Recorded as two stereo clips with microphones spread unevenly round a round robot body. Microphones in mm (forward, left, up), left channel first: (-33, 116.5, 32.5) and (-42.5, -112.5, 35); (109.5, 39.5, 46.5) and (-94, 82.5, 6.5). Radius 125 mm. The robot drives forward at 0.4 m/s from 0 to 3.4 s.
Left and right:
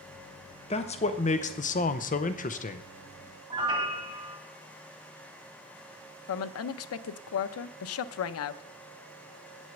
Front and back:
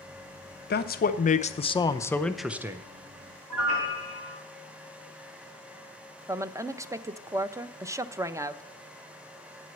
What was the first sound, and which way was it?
A man speaking, 30° left.